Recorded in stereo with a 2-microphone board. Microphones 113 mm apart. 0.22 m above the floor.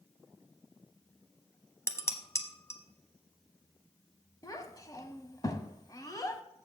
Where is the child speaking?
35° left (ahead or behind), 0.9 m.